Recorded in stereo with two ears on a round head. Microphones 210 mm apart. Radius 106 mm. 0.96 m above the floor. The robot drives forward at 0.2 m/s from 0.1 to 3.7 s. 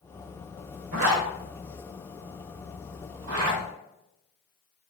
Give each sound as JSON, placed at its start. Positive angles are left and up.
{"t": 0.9, "sound": "a zipper", "side_deg": -65, "distance_m": 1.6}